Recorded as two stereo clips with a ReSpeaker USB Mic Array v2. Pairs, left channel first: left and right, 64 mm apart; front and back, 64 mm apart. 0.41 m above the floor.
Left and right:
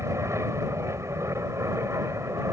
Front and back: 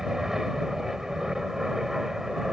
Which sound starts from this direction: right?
An aircraft, at 0.0 s.